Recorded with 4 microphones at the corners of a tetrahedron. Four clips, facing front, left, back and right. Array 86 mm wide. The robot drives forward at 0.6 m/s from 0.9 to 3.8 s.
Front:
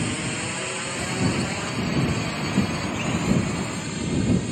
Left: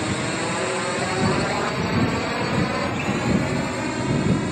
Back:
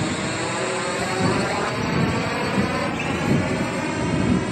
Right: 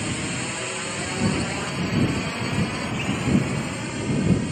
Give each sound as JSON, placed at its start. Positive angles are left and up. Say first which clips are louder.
{"t": 0.0, "sound": "a drone", "louder": "left 4 dB, back 4 dB", "azimuth_deg": 135}